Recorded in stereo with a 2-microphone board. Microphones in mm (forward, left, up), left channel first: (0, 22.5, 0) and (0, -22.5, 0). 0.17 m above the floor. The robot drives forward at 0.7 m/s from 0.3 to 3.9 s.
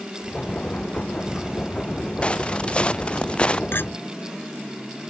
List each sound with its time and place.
2.2 s footsteps: 25° left (ahead or behind)
3.7 s a clink: 60° left (ahead or behind); by 3.9 s 55° left (ahead or behind)